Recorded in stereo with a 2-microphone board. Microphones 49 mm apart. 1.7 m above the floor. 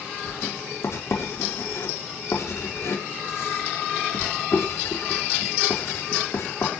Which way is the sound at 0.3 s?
75° left (ahead or behind).